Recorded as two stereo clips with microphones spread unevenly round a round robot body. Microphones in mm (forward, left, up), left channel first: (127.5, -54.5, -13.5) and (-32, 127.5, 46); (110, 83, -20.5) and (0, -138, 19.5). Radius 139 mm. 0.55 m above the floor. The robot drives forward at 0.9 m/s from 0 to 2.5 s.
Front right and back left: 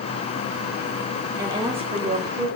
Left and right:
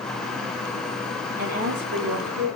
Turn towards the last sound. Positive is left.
turn(degrees=-165)